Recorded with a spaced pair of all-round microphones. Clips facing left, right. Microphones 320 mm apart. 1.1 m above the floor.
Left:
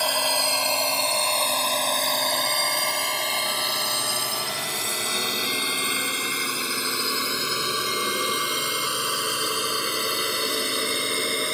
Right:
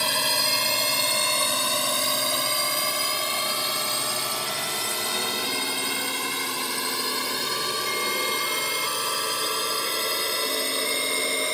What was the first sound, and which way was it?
A drone, 30° right (ahead or behind).